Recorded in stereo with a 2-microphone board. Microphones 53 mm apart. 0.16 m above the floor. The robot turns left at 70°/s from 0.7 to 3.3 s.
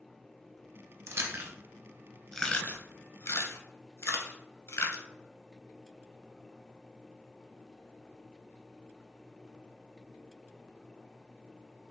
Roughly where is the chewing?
Right.